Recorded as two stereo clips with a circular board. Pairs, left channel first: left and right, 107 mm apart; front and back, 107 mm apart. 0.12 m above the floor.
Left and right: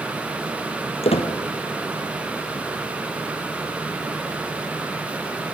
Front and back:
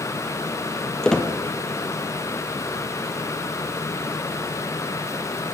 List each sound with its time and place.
1.0 s a squeak: 85° left, 1.2 m